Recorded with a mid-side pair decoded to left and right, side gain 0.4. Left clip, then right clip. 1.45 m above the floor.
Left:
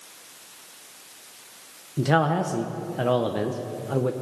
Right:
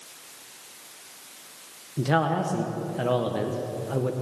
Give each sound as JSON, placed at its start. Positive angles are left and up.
{"t": 2.0, "sound": "a man speaking", "azimuth_deg": 30, "distance_m": 0.9}